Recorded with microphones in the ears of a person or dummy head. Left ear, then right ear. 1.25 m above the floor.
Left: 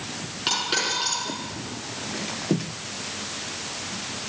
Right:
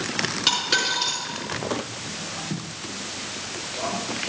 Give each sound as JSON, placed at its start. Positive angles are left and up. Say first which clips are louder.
{"t": 0.5, "sound": "a dropped coin", "louder": "right 1 dB", "side_deg": -10, "distance_m": 4.5}